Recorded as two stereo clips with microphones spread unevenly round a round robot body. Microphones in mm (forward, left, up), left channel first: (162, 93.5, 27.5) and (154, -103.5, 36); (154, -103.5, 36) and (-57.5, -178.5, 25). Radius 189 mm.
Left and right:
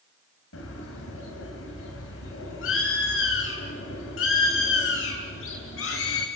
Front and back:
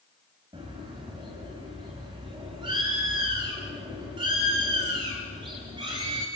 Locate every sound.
0.5 s a bird: 120° left, 3 m